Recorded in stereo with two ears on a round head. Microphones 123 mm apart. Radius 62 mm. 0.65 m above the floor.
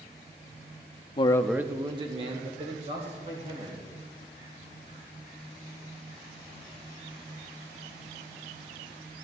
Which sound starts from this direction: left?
A man speaking, at 1.2 s.